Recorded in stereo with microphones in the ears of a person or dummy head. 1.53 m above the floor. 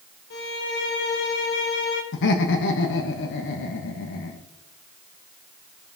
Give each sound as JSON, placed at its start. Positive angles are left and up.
{"t": 0.3, "sound": "a violin", "side_deg": 65, "distance_m": 1.6}
{"t": 2.1, "sound": "laughter", "side_deg": 70, "distance_m": 1.2}